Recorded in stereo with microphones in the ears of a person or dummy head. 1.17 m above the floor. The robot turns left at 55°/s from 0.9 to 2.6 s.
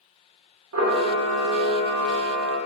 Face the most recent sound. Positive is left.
turn(degrees=-175)